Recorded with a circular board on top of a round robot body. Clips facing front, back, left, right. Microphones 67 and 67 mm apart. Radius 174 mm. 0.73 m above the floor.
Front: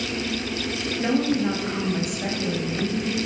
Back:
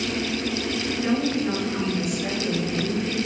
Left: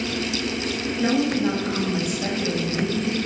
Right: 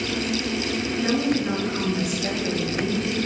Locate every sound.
1.0 s a woman speaking: 35° left, 5 m